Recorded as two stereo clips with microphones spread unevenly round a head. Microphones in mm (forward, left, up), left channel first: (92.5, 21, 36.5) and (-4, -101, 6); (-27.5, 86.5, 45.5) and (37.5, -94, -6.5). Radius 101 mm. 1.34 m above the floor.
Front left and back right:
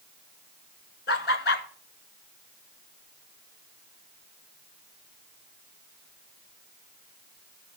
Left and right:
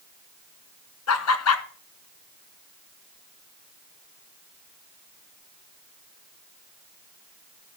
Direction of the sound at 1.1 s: 100° left.